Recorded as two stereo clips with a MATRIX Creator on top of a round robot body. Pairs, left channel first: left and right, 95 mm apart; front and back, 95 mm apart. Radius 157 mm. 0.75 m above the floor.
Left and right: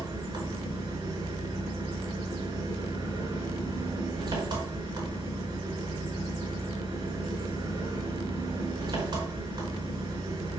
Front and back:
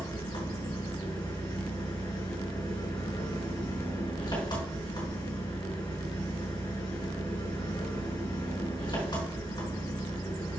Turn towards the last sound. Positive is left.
turn(degrees=-45)